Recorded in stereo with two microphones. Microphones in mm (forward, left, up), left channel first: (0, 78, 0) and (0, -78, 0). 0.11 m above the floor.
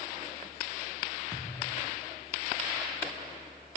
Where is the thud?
15° right (ahead or behind), 9.5 m.